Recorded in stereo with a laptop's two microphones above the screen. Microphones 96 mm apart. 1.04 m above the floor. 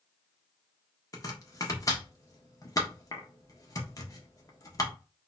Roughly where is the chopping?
Left.